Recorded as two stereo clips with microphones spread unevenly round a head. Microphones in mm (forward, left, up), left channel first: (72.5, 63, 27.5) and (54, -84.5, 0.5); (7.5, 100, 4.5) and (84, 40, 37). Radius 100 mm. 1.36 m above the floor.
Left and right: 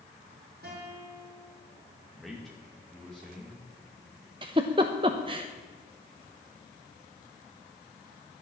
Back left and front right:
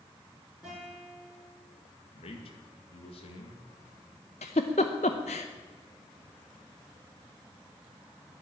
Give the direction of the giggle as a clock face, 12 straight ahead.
6 o'clock.